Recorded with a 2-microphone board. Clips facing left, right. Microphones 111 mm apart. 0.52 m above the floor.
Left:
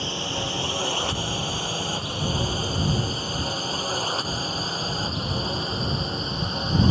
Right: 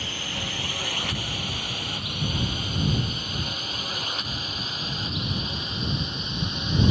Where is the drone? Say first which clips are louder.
Left 5 dB; 30° left (ahead or behind); by 6.9 s 40° left (ahead or behind).